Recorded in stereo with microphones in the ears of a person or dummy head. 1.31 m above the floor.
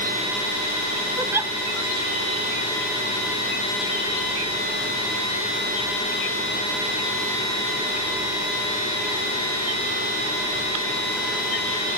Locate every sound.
1.2 s a giggle: 15° right (ahead or behind)